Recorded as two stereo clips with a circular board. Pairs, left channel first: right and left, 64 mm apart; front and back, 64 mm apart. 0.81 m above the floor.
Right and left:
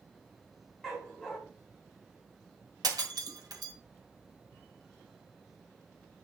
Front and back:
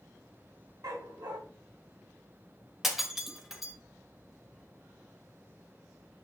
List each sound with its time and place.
0.8 s a dog barking: 175° left, 2.5 m
2.8 s breaking glass: 95° left, 1.7 m